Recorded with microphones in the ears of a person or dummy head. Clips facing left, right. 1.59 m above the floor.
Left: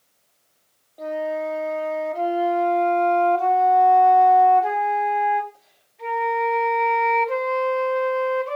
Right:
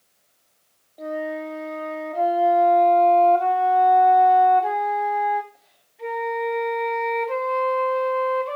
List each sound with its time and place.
1.0 s a flute: centre (ahead or behind), 2 m